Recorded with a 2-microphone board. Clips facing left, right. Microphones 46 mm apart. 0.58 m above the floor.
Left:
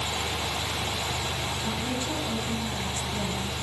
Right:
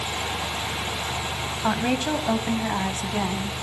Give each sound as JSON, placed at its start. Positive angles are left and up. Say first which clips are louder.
{"t": 1.6, "sound": "a woman speaking", "louder": "right 11 dB", "side_deg": -75, "distance_m": 3.0}